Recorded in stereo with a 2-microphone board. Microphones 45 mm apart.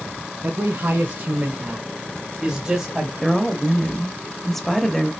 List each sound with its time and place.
0.4 s a man speaking: 40° right (ahead or behind), 2 m; by 3.1 s 10° right (ahead or behind), 1.9 m
3.2 s a woman speaking: 5° left (ahead or behind), 1.1 m